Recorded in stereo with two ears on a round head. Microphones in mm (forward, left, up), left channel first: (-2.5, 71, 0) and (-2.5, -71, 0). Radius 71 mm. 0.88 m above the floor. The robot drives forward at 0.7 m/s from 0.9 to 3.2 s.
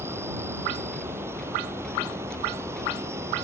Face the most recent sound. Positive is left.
turn(degrees=-15)  # may be behind; listen again after turning